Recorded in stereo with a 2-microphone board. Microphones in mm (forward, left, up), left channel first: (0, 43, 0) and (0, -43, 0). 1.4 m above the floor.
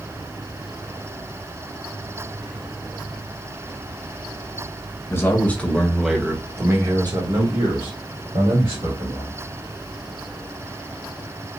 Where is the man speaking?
30° left (ahead or behind), 1.5 m; by 9.4 s 85° right, 3 m.